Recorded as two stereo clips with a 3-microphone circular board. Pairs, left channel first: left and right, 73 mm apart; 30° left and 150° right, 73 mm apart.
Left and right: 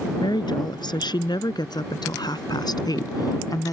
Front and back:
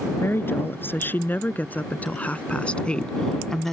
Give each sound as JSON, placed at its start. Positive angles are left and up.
{"t": 0.2, "sound": "a woman speaking", "azimuth_deg": 90}